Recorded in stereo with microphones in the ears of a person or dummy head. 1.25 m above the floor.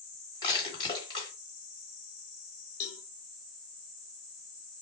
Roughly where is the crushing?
Left.